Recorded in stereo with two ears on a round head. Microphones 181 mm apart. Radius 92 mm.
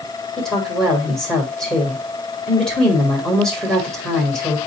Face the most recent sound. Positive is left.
turn(degrees=5)  # may be behind; listen again after turning